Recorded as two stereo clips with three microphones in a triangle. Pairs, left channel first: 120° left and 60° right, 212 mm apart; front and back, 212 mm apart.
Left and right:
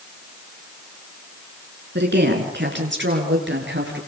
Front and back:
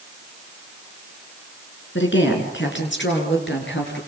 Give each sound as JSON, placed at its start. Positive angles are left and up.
{"t": 1.9, "sound": "a woman speaking", "azimuth_deg": -25, "distance_m": 6.5}